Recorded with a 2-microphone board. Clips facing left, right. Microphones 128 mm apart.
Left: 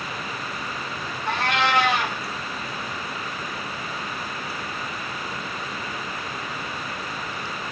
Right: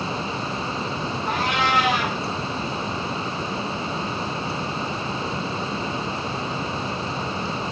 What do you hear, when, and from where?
1.3 s a cat meowing: 60° left (ahead or behind), 7.5 m